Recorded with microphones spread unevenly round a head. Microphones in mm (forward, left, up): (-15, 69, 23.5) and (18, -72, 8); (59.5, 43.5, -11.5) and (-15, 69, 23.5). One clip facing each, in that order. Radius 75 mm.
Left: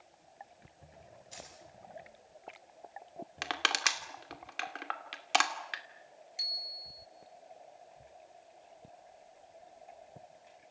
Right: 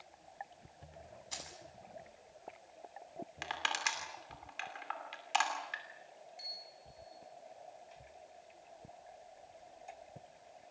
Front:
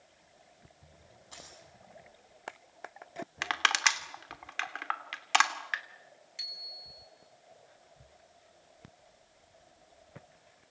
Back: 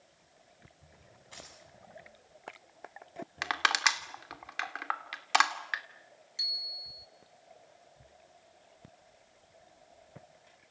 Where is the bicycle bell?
100° left, 4.5 m.